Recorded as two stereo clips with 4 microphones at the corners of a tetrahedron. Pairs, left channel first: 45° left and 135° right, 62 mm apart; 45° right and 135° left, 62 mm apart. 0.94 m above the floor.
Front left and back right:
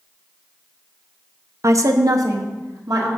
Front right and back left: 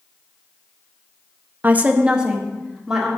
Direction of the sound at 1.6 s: 170° right.